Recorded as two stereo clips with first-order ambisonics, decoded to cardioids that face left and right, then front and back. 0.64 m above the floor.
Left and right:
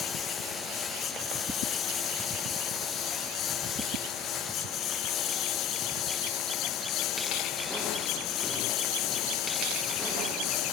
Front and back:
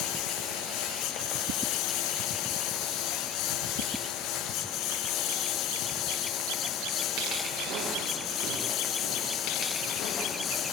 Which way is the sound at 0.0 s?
25° left.